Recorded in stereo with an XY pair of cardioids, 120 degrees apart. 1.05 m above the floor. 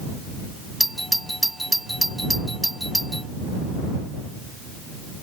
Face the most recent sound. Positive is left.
turn(degrees=0)